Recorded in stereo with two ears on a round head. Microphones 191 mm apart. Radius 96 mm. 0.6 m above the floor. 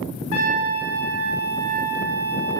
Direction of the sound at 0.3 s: 70° left (ahead or behind).